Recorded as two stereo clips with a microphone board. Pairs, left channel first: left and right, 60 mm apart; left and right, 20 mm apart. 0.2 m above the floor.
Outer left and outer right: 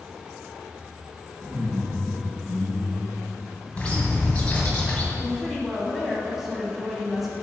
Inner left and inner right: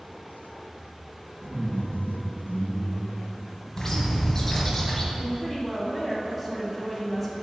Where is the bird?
20° left (ahead or behind), 1.1 m.